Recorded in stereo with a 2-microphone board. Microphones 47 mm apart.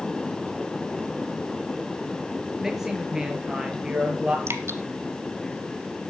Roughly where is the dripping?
Right.